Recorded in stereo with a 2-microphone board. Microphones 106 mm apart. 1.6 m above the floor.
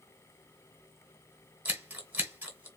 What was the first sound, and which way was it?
Scissors, 15° right (ahead or behind).